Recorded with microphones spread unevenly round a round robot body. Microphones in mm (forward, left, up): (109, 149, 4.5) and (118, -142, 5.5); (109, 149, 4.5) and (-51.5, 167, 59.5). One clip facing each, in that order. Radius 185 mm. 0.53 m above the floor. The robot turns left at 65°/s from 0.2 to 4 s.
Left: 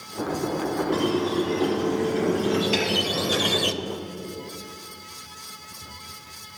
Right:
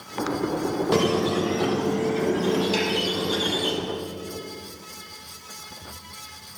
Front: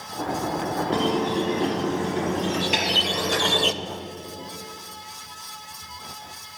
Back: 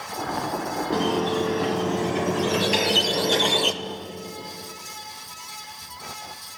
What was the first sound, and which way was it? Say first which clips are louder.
A squeak: right 2 dB, back 1 dB; 90° right.